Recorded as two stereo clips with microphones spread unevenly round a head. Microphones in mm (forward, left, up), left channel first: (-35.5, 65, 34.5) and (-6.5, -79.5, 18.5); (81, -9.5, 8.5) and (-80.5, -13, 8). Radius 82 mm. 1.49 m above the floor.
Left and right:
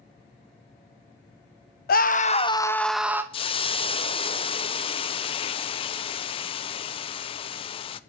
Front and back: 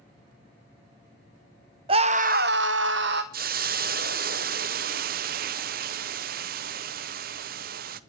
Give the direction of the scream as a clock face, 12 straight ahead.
8 o'clock.